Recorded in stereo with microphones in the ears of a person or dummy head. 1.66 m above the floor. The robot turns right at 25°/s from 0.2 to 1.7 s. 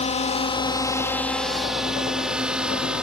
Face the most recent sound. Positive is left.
turn(degrees=-10)  # may be behind; listen again after turning